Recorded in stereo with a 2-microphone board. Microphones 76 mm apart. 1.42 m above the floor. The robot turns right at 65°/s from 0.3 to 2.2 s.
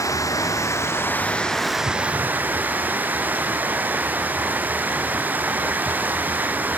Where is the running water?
90° left, 1.9 m; by 6.8 s 145° right, 1.9 m.